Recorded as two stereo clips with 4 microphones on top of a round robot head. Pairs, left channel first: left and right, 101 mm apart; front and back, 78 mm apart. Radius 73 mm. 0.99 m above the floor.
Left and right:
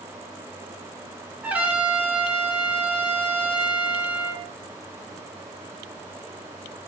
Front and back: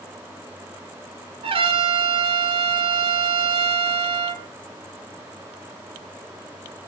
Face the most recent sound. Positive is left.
turn(degrees=-170)